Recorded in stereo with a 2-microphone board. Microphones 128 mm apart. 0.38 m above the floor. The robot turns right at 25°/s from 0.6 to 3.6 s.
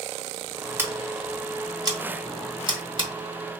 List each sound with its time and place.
0.8 s scissors: 15° right (ahead or behind), 0.8 m; by 3.1 s 40° right (ahead or behind), 0.8 m